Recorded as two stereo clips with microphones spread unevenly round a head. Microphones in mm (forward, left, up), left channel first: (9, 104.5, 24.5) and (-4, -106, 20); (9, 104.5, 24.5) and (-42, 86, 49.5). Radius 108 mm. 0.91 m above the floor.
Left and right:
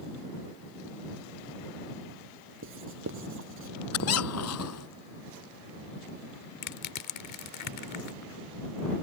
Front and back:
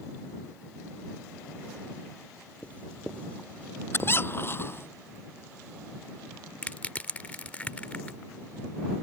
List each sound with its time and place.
2.6 s writing: 60° right
3.9 s a squeak: 70° left
6.6 s crushing: 90° left